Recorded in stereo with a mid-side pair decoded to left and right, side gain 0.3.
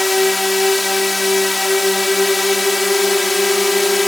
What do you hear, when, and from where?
0.0 s a drone: 20° left